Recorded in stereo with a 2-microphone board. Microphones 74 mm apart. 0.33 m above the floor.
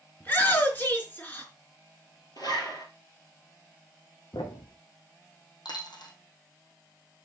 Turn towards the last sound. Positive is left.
turn(degrees=75)  # may be behind; listen again after turning